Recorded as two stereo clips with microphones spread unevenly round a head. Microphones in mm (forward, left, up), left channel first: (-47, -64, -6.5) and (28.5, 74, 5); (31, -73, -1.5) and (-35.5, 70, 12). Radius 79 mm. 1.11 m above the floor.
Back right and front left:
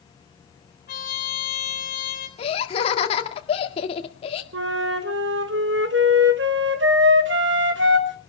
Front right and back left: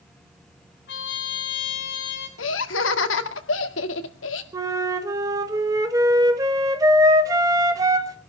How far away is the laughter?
About 1.9 m.